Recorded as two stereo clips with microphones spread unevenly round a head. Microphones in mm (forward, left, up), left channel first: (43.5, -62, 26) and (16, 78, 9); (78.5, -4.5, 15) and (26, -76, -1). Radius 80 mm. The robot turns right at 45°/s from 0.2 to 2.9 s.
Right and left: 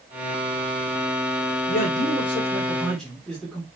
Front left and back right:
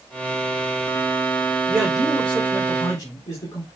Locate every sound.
1.7 s a man speaking: 50° right, 4.5 m; by 3.6 s 5° left, 4.5 m